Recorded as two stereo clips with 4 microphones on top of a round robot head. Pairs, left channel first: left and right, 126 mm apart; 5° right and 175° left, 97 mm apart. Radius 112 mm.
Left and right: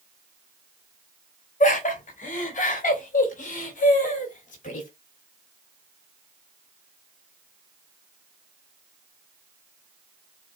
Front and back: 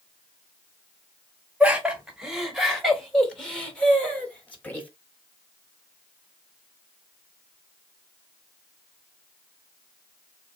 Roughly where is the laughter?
Left.